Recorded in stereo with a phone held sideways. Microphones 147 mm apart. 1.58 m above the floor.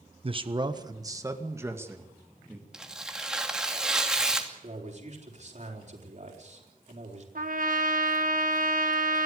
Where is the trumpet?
70° right (ahead or behind), 1.7 m.